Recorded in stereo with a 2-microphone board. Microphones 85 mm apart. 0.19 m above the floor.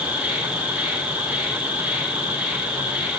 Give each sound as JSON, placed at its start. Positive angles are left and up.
{"t": 0.0, "sound": "an insect", "side_deg": -15, "distance_m": 1.6}